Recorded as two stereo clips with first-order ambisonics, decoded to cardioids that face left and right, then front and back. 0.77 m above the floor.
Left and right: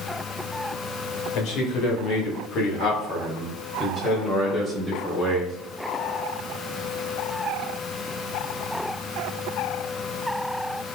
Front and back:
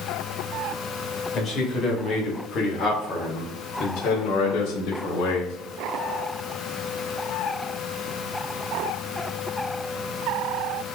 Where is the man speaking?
65° left, 2.5 m; by 5.6 s 5° right, 1.4 m.